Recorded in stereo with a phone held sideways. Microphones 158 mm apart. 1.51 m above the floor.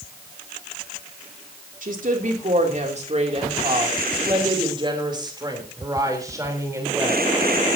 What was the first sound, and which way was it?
A woman speaking, 60° right (ahead or behind).